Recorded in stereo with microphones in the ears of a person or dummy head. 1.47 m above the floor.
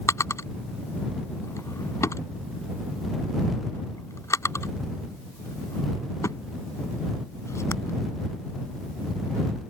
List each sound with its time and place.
0.1 s a drawer: 20° left (ahead or behind)